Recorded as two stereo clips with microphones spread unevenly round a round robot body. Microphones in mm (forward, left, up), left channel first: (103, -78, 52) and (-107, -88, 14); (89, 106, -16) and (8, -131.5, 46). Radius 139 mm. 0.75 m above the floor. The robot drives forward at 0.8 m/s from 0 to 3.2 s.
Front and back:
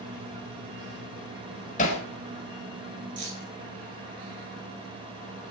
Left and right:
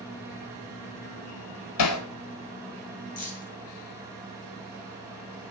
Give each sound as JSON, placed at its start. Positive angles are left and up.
{"t": 1.8, "sound": "hammering", "azimuth_deg": 65, "distance_m": 3.5}
{"t": 3.2, "sound": "keys jangling", "azimuth_deg": 135, "distance_m": 8.5}